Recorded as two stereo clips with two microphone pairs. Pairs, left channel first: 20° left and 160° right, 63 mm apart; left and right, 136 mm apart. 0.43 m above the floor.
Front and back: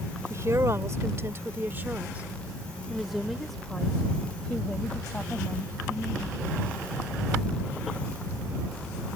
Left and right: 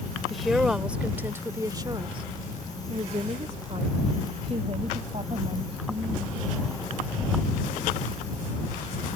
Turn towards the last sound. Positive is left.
turn(degrees=-45)